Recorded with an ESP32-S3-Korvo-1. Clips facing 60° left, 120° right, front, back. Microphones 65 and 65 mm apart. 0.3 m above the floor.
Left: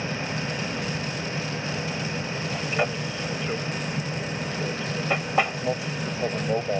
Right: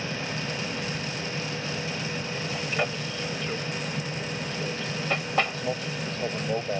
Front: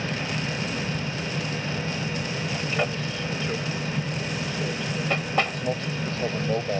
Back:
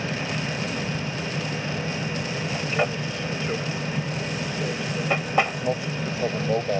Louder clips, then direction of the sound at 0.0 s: Left 2 dB, back 1 dB; 125° left.